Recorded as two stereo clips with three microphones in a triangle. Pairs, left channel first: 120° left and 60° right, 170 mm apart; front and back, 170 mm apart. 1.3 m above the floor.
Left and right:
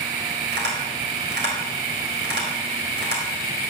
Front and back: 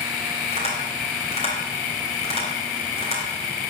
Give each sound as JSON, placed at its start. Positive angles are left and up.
{"t": 0.5, "sound": "tapping", "azimuth_deg": -55, "distance_m": 3.5}